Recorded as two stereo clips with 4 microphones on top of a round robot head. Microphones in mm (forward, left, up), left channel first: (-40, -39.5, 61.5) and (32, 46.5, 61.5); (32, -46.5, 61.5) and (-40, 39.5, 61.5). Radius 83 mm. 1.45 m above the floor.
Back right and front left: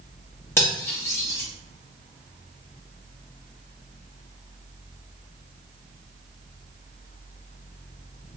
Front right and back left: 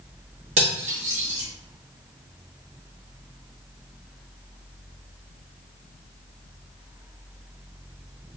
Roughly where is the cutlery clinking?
Behind.